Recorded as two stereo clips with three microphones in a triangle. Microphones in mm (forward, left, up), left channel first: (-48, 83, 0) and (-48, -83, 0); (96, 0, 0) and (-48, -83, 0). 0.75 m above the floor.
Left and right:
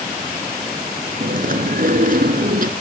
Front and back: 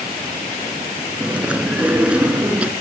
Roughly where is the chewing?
Right.